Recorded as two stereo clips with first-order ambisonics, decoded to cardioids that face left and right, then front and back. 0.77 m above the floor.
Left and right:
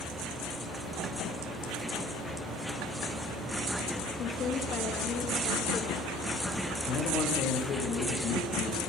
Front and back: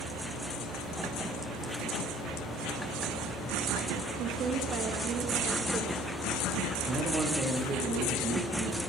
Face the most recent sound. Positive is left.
turn(degrees=120)